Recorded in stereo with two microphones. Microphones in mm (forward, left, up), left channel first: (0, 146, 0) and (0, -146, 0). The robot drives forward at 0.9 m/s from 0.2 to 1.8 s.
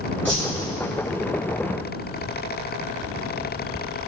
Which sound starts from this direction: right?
A whoosh, at 0.2 s.